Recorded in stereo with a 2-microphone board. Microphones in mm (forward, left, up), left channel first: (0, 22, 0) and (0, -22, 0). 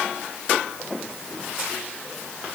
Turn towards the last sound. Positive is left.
No sound to turn to.